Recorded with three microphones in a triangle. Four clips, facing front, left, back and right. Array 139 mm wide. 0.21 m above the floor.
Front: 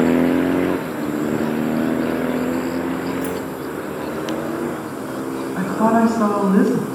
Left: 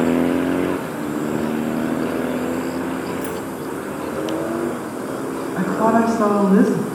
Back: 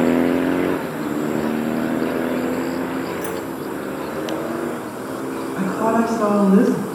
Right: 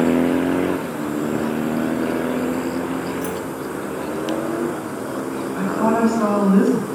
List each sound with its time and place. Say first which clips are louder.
3.2 s keys jangling: even, front 2 dB; 165° left, 0.9 m
5.6 s a woman speaking: left 2 dB, front 3 dB; 45° left, 1.1 m